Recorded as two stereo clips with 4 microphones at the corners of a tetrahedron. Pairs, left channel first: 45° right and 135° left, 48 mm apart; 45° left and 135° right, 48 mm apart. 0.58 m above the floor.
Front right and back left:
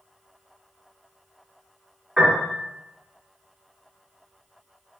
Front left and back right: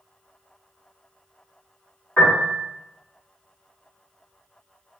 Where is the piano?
70° left, 1.6 m.